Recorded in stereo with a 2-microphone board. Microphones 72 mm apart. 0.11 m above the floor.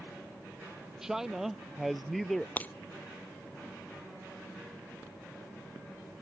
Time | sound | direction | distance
1.0 | a man speaking | 5° right (ahead or behind) | ?
2.6 | breaking glass | 20° left (ahead or behind) | ?